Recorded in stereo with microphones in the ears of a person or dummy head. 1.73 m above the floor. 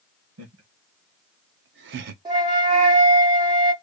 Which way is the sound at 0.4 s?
85° right.